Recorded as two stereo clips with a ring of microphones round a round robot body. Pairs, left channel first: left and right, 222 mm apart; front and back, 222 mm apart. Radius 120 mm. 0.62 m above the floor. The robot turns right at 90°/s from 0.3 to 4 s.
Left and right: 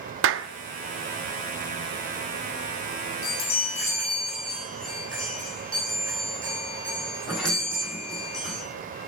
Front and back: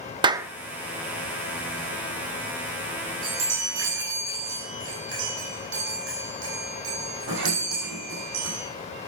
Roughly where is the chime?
Left.